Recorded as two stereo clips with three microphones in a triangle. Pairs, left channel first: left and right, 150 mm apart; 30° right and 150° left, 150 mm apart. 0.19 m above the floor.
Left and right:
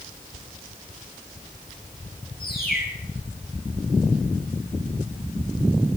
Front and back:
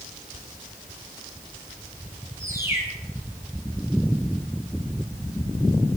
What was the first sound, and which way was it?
A bird, 80° left.